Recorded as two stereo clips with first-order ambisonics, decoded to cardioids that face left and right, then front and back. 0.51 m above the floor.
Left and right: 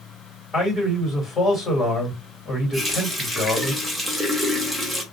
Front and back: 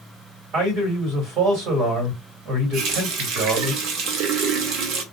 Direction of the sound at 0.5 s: 175° left.